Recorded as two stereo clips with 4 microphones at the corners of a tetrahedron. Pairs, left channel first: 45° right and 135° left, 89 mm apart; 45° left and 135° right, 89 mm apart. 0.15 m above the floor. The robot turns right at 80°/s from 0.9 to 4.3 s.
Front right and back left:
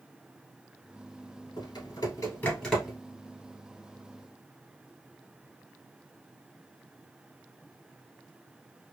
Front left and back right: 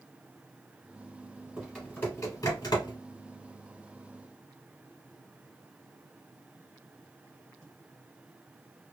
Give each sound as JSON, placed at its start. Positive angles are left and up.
{"t": 1.6, "sound": "typing on a keyboard", "azimuth_deg": -55, "distance_m": 1.5}